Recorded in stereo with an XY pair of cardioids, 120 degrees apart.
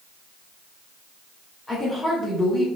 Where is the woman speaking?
25° left, 3 m.